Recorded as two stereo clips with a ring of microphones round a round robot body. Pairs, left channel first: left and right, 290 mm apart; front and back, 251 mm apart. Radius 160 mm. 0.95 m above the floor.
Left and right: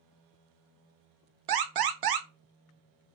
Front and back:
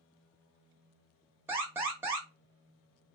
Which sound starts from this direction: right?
An alarm, at 1.5 s.